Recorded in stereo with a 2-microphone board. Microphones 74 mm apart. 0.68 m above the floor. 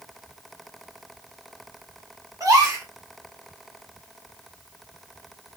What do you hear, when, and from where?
2.4 s a gasp: 50° right (ahead or behind), 1.0 m